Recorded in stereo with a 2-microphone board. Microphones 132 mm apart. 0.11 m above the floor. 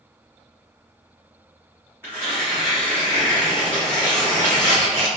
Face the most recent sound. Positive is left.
turn(degrees=-15)  # may be behind; listen again after turning